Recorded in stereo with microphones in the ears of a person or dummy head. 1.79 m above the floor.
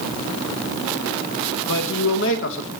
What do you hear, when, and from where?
1.7 s a man speaking: 75° left (ahead or behind), 2.5 m